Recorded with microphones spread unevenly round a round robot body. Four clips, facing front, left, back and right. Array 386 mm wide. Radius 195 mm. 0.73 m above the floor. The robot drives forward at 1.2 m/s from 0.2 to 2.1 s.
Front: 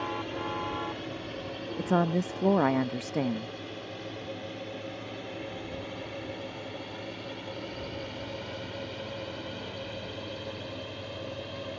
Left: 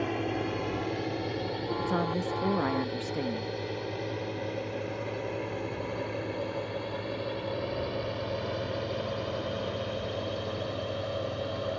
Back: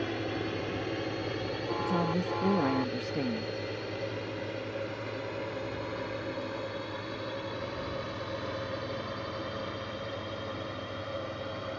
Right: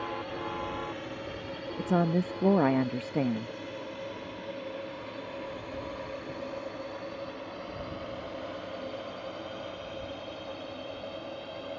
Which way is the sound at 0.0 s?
110° left.